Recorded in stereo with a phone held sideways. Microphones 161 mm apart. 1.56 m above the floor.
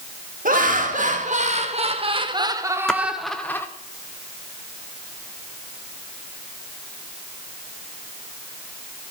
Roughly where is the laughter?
Right.